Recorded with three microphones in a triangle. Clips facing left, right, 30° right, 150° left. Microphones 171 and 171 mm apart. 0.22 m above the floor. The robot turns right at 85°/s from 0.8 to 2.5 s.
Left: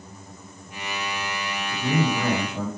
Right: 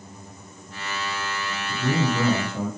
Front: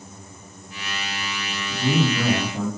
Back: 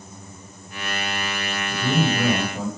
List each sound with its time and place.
1.7 s a man speaking: 80° right, 3 m; by 2.7 s 10° right, 3 m